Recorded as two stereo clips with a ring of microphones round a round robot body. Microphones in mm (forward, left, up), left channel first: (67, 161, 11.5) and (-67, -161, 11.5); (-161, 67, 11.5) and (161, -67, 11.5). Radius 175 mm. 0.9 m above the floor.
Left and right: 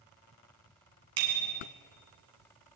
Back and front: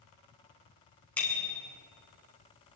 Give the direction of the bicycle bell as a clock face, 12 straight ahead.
4 o'clock.